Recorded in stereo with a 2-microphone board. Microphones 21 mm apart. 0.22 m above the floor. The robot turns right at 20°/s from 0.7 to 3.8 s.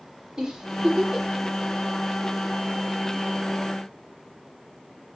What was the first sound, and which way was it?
A giggle, 40° right (ahead or behind).